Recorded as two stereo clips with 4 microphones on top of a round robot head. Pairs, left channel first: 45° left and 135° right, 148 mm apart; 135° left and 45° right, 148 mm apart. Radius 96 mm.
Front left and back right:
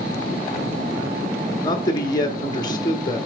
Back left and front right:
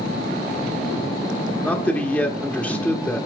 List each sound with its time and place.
1.6 s a man speaking: 60° left, 0.8 m